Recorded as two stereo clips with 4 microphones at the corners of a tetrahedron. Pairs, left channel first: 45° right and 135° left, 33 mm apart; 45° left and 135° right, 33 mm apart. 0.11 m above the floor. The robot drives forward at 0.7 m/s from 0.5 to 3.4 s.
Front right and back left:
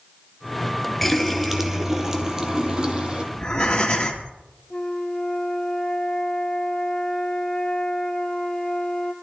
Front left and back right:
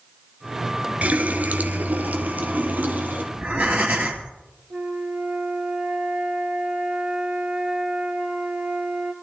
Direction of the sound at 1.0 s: 125° right.